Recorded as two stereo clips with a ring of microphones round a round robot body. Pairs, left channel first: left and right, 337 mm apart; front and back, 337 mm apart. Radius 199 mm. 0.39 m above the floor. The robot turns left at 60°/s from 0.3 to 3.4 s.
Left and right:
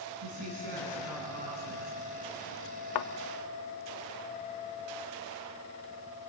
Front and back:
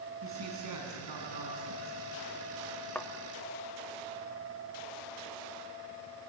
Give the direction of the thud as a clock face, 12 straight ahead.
9 o'clock.